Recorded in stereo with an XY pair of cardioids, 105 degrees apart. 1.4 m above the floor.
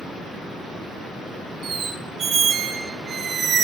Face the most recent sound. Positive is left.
turn(degrees=-55)